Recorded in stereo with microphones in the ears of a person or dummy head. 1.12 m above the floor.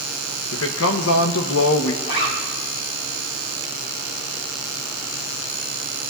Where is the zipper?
55° left (ahead or behind), 3 m.